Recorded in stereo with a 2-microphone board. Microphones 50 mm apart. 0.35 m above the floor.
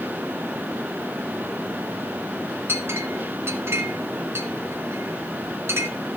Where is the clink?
55° right (ahead or behind), 1.3 m.